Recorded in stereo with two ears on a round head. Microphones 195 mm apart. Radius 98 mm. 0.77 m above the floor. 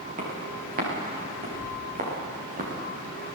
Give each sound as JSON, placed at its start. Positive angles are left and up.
{"t": 0.2, "sound": "footsteps", "side_deg": -40, "distance_m": 9.0}